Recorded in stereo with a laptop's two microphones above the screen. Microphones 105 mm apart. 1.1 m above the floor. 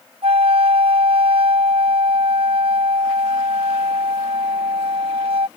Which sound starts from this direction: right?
A flute, at 0.2 s.